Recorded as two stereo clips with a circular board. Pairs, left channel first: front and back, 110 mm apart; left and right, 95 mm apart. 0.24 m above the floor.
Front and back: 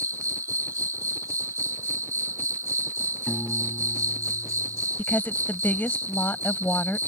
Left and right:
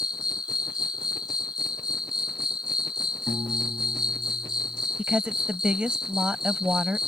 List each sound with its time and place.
0.0 s an insect: 120° left
3.3 s a piano: 80° right
5.0 s a woman speaking: 40° right